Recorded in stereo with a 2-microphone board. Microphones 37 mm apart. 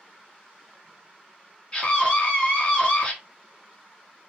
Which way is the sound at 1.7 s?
30° left (ahead or behind).